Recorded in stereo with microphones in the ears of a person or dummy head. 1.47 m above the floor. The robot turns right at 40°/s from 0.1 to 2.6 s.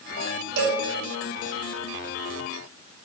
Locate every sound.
0.6 s a cowbell: 55° right (ahead or behind), 7 m; by 0.8 s 45° right (ahead or behind), 7 m